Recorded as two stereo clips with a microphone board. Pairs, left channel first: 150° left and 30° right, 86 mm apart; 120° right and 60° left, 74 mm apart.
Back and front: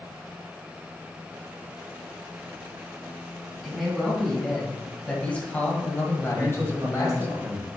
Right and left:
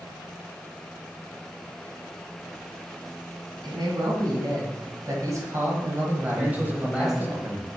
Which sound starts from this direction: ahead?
A man speaking, at 6.4 s.